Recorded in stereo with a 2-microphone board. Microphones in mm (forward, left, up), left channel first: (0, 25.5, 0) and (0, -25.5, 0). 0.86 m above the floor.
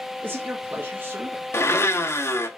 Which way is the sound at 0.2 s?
40° right (ahead or behind).